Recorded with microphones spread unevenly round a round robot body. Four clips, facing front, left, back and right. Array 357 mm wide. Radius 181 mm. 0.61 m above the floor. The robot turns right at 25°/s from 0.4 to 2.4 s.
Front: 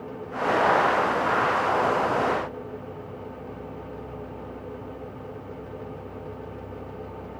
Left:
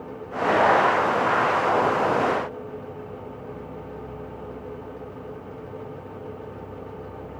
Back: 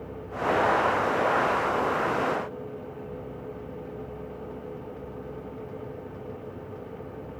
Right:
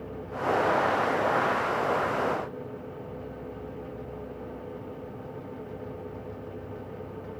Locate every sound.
Only background noise.